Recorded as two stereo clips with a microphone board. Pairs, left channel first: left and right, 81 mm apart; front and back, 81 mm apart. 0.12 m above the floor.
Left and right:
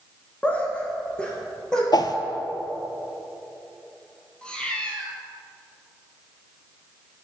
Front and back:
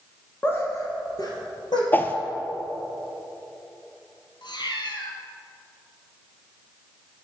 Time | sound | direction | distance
0.4 | laughter | 35° left | 1.4 m
1.9 | a whoosh | 65° left | 0.5 m
4.4 | a cat meowing | 15° left | 1.0 m